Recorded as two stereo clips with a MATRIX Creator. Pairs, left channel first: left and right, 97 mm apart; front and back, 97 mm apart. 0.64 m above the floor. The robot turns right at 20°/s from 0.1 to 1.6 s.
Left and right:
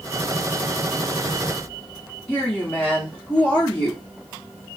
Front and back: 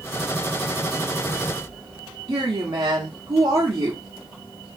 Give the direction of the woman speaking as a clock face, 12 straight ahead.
7 o'clock.